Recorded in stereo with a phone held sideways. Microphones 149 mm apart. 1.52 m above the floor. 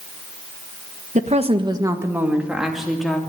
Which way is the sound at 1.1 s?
55° right (ahead or behind).